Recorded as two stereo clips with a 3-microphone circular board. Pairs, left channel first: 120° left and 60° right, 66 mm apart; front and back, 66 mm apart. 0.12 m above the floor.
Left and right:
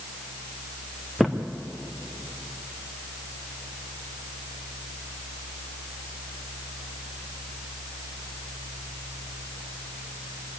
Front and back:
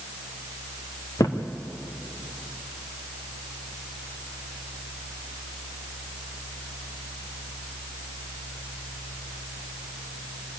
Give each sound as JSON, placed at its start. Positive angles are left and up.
{"t": 1.2, "sound": "a thud", "azimuth_deg": 25, "distance_m": 2.0}